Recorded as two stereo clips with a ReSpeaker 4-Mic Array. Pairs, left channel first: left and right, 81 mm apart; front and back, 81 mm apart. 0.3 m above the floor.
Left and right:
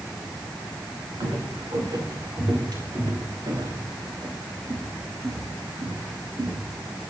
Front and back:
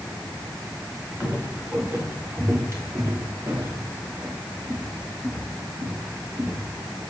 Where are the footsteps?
115° right, 5 m; by 6.7 s 145° right, 6 m.